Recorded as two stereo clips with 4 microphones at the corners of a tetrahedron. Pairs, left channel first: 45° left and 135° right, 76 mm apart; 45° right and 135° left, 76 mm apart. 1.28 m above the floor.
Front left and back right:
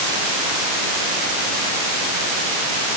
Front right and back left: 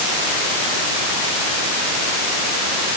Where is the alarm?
No alarm in this recording.